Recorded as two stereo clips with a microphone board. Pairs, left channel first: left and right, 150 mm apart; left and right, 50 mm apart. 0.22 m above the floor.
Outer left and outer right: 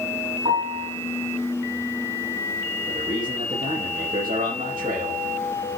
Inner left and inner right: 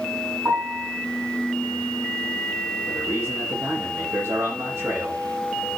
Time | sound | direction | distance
0.5 | a piano | 45° right (ahead or behind) | 7 m
2.9 | a man speaking | 65° right (ahead or behind) | 10 m